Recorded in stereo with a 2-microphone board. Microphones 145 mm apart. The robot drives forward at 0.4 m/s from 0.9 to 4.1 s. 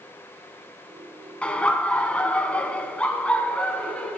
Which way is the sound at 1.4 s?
10° left (ahead or behind).